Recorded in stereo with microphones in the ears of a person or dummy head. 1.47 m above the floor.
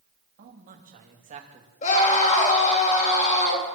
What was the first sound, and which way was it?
A man speaking, 50° right (ahead or behind).